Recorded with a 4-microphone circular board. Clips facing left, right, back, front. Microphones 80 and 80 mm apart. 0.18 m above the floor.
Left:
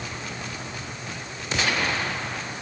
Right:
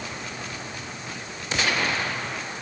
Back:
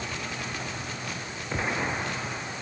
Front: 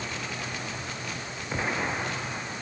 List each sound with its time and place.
Only background noise.